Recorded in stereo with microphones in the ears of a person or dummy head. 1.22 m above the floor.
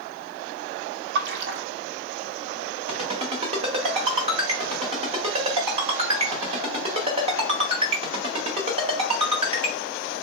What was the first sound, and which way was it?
A splash, 70° right (ahead or behind).